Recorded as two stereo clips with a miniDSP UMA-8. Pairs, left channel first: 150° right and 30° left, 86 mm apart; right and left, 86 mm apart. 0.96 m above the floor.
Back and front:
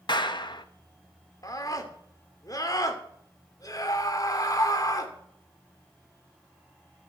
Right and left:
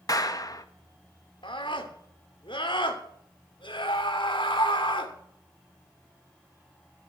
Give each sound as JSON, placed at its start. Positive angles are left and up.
{"t": 0.1, "sound": "a clap", "azimuth_deg": -130, "distance_m": 1.0}
{"t": 1.4, "sound": "a scream", "azimuth_deg": -105, "distance_m": 2.5}